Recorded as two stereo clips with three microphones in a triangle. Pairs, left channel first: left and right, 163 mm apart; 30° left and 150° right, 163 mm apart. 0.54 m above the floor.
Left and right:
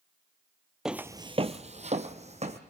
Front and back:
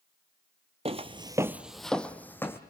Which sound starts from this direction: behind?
Footsteps, at 0.8 s.